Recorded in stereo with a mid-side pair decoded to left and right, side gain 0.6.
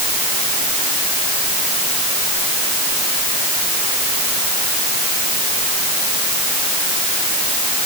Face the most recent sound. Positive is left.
No sound to turn to.